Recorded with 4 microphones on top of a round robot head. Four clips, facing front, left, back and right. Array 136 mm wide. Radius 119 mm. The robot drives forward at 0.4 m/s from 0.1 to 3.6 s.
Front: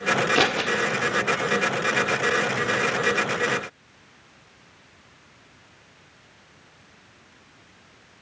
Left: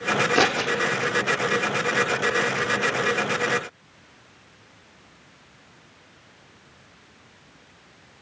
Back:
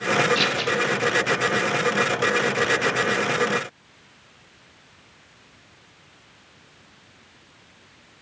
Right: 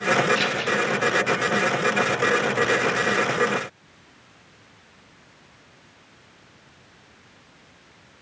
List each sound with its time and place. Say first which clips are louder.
0.3 s scissors: left 4 dB, front 2 dB; 60° left, 1.7 m